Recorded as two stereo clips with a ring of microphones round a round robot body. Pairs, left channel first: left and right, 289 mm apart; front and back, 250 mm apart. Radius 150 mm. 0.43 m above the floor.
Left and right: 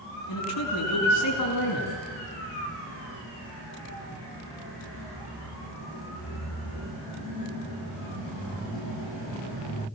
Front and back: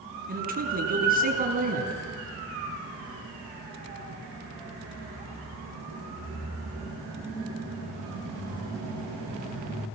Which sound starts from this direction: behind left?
A man speaking, at 0.3 s.